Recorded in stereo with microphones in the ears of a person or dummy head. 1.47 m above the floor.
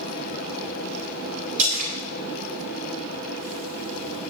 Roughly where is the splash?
Right.